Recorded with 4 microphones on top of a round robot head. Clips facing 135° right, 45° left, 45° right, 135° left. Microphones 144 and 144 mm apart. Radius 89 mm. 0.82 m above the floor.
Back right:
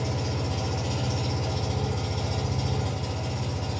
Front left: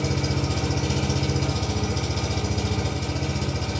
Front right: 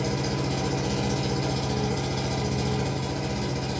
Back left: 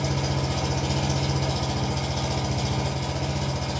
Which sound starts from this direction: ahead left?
An engine running, at 0.0 s.